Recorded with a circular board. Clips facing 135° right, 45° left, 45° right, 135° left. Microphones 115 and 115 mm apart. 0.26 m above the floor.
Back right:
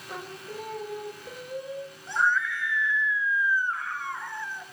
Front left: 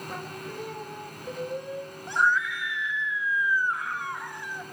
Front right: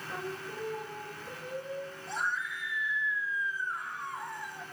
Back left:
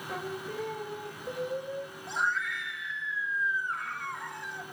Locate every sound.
0.1 s singing: 140° left, 5 m
2.1 s a scream: 120° left, 3 m